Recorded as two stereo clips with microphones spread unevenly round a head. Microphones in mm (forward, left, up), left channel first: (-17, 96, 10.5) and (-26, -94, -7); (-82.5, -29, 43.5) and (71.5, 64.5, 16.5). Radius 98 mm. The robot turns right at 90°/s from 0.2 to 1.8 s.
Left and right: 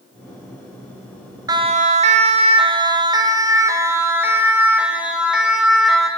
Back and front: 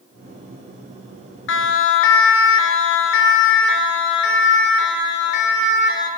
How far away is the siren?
About 2.5 m.